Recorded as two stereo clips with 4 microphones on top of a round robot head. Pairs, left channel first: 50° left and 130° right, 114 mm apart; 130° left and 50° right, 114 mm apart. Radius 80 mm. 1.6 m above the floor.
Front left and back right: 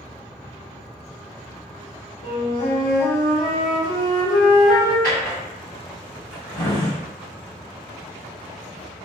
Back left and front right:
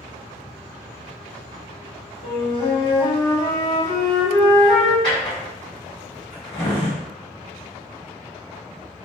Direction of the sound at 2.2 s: 85° left.